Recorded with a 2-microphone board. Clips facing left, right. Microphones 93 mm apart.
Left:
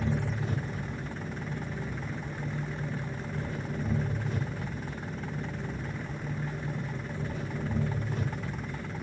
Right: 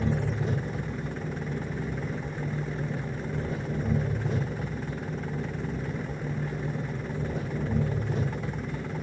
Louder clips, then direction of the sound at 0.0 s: Right 3 dB; 80° right.